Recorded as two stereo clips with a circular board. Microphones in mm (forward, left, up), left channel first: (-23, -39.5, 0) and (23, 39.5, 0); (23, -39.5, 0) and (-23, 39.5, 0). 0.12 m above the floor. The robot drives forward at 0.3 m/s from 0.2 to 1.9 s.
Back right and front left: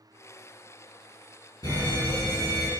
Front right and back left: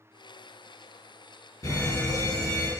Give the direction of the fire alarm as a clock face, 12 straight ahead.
3 o'clock.